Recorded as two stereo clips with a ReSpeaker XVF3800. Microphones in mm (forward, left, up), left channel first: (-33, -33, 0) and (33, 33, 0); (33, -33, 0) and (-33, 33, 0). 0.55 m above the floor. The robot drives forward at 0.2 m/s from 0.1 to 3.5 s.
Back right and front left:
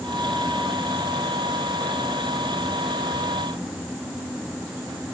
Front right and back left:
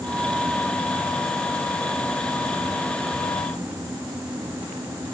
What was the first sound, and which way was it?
Only background noise.